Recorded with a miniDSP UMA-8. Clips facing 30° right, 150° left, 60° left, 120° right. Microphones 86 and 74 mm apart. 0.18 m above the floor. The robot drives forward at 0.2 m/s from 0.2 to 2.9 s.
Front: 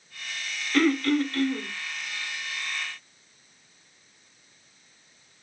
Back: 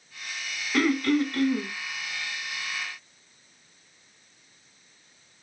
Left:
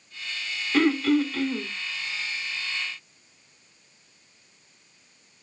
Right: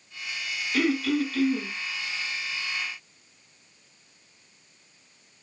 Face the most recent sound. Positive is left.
turn(degrees=105)